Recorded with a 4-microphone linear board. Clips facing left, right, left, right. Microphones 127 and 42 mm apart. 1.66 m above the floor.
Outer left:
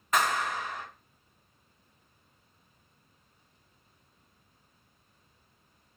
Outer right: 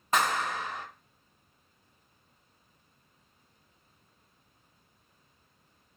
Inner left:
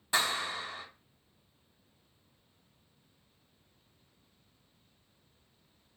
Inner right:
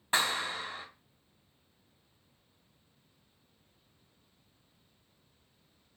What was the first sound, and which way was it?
A clap, 30° right (ahead or behind).